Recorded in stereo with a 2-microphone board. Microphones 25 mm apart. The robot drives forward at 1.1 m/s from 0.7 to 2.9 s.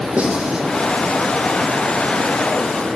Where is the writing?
75° right (ahead or behind), 6.5 m.